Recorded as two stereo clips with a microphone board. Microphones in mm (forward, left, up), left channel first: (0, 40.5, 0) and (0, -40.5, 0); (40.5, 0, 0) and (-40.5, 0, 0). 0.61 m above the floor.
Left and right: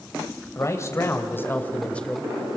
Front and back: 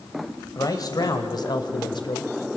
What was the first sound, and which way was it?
A man speaking, 40° left.